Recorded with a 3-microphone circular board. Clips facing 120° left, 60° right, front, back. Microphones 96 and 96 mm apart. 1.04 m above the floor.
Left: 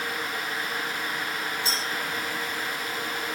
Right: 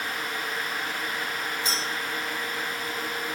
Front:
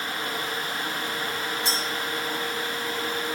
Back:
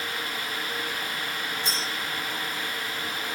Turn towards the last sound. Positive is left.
turn(degrees=-10)